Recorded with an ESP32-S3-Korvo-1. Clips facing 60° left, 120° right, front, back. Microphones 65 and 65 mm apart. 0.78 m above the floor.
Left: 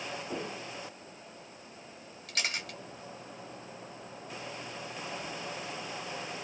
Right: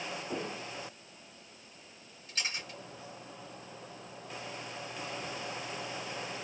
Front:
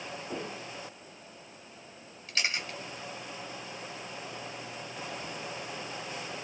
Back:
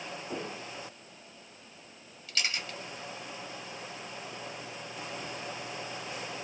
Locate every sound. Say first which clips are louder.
2.3 s a camera shutter: left 3 dB, front 2 dB; 65° left, 1.2 m